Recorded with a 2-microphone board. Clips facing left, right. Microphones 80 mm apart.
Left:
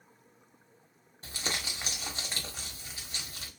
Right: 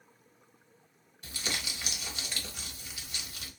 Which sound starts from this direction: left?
Crumpling, at 1.2 s.